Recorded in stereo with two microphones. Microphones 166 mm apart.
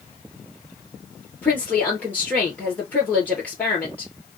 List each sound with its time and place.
1.4 s a woman speaking: 10° left (ahead or behind), 2.5 m